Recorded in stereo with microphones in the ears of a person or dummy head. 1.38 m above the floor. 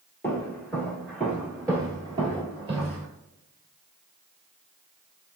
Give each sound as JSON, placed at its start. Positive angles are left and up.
{"t": 0.2, "sound": "footsteps", "side_deg": 15, "distance_m": 1.4}